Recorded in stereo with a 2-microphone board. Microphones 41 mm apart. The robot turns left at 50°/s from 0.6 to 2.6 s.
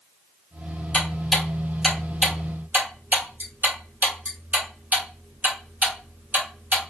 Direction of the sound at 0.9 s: 30° left (ahead or behind).